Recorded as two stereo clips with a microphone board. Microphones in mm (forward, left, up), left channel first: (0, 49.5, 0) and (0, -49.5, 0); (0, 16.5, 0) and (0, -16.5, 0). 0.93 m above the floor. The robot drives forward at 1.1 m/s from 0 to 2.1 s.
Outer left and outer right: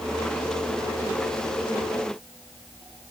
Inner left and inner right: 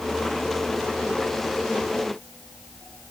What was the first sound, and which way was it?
Only background noise.